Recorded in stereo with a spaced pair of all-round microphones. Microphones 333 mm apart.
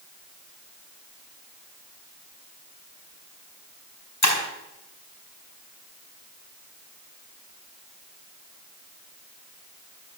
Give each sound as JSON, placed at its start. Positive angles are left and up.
{"t": 4.2, "sound": "breaking glass", "side_deg": 55, "distance_m": 4.0}